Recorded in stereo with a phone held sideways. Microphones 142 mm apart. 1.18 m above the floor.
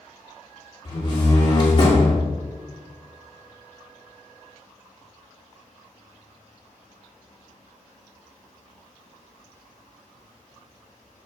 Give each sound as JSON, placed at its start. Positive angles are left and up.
{"t": 0.8, "sound": "a door slam", "side_deg": 35, "distance_m": 2.5}